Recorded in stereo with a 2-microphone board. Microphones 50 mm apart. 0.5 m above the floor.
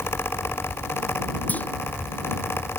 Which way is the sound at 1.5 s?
30° left (ahead or behind).